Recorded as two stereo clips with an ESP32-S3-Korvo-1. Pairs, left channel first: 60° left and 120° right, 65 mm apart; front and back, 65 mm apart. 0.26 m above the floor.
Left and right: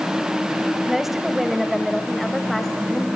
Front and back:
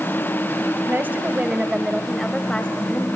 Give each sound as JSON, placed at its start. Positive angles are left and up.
{"t": 0.9, "sound": "a woman speaking", "azimuth_deg": 155, "distance_m": 1.2}